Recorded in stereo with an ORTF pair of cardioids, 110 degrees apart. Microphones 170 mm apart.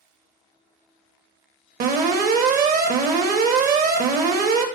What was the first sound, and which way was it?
An alarm, 65° right.